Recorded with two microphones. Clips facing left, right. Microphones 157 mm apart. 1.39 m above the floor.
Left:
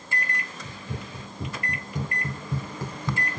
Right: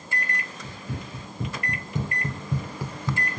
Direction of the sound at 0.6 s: 25° right (ahead or behind).